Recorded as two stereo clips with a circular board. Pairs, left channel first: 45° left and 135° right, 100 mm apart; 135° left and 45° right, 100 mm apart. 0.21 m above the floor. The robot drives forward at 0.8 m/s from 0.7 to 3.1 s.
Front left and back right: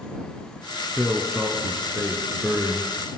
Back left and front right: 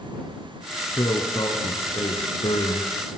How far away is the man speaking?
About 3 m.